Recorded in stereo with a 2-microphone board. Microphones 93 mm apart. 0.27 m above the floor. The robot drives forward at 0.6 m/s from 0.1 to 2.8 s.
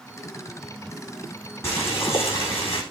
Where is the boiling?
25° left (ahead or behind), 10 m.